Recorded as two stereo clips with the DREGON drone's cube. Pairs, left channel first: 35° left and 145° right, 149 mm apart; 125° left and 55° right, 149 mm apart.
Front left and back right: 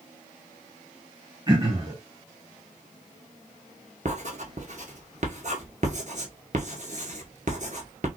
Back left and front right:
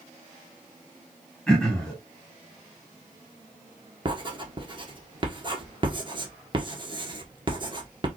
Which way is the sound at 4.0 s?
110° right.